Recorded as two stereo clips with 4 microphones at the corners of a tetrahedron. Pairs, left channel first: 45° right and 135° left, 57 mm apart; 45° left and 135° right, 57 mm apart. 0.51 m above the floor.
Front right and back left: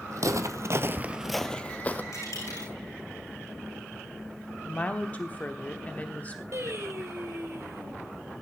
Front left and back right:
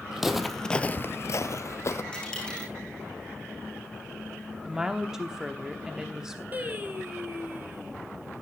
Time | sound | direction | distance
0.1 | footsteps | 145° left | 1.3 m
2.1 | a dropped coin | 30° right | 6.5 m
4.7 | a woman speaking | 65° right | 1.0 m
6.5 | singing | 165° left | 2.5 m